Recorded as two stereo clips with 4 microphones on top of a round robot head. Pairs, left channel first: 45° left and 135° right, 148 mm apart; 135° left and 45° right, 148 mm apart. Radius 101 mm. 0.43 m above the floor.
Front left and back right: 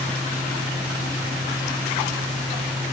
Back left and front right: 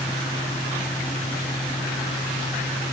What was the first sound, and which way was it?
Only background noise.